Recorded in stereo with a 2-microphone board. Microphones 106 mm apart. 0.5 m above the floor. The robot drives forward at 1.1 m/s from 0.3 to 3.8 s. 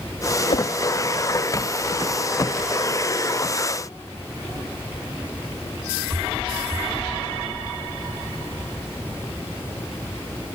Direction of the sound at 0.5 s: 80° left.